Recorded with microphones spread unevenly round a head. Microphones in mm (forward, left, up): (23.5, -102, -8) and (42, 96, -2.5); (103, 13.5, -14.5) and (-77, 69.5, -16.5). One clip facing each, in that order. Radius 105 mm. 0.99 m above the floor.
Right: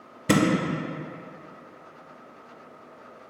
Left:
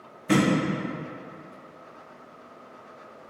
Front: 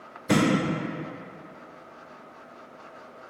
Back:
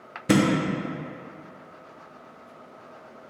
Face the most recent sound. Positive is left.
turn(degrees=-135)